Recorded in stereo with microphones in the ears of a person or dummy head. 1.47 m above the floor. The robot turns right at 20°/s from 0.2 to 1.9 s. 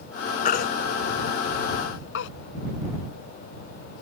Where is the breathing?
I don't hear breathing.